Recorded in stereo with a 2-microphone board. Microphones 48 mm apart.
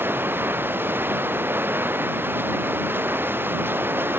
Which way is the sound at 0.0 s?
45° right (ahead or behind).